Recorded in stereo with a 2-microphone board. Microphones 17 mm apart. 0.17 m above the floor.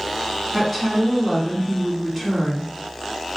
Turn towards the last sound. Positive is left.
turn(degrees=-5)  # may be behind; listen again after turning